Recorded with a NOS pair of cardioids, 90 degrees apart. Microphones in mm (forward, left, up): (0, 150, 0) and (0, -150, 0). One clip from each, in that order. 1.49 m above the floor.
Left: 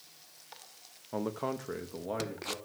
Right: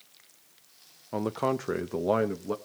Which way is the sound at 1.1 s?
20° right.